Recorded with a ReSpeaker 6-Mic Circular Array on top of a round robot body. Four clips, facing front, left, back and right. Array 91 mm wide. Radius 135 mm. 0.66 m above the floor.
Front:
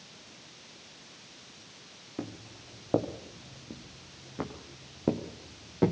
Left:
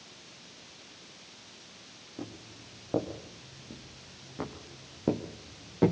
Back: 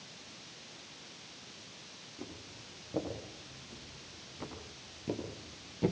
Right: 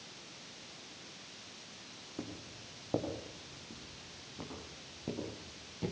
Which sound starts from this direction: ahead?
Footsteps, at 2.2 s.